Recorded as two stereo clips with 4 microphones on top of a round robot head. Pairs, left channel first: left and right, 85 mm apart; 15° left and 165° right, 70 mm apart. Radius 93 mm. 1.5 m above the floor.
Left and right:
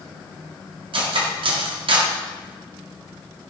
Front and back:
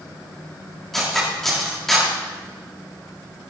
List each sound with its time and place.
0.9 s cutlery clinking: 75° right, 1.6 m